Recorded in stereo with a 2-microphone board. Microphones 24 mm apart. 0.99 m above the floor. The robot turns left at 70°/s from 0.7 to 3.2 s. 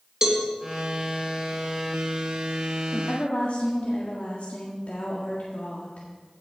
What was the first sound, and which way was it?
A cowbell, 25° right (ahead or behind).